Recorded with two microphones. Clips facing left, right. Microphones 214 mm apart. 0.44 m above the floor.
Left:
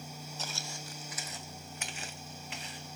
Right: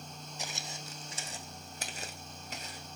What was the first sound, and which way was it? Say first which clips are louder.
Footsteps: right 2 dB; 15° right (ahead or behind).